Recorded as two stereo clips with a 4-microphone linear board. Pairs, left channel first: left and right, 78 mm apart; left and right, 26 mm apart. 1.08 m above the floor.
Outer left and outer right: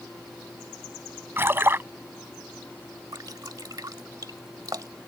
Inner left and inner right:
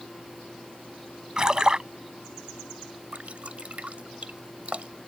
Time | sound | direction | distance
1.4 | a splash | 30° right (ahead or behind) | ?
3.1 | dripping | 55° right (ahead or behind) | ?